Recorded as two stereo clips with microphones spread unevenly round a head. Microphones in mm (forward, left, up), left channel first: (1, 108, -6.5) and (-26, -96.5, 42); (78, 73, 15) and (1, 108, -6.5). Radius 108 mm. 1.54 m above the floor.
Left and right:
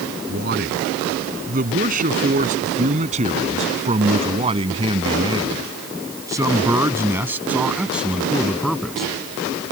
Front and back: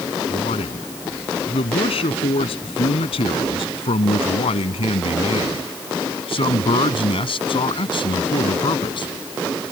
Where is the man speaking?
50° right; by 9.1 s 5° right.